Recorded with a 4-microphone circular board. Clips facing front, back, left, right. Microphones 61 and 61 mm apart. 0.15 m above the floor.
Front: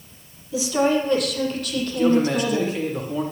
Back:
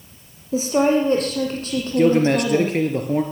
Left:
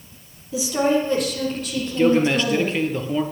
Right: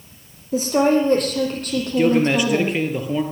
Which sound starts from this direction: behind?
A man speaking, at 2.0 s.